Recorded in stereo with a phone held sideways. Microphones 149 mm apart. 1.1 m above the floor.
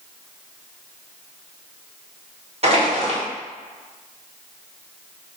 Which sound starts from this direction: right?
Crushing, at 2.6 s.